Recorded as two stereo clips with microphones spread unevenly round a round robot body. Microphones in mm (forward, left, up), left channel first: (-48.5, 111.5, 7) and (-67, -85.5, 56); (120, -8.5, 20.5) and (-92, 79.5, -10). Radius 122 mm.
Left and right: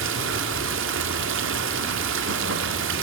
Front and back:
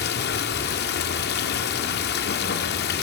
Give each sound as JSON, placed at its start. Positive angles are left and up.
{"t": 0.0, "sound": "running water", "azimuth_deg": -70, "distance_m": 0.8}